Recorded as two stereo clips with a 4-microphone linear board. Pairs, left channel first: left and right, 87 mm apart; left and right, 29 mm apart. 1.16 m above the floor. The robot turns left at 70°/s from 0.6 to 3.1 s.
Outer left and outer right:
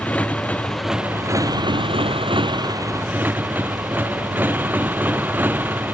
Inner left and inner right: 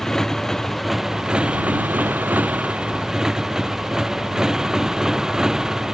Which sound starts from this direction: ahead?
A motorcycle, at 0.0 s.